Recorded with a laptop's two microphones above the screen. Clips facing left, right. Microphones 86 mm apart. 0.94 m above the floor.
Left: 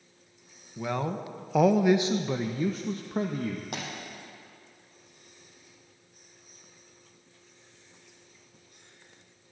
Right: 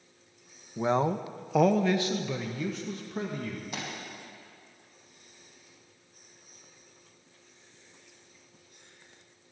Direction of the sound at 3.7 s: 65° left (ahead or behind).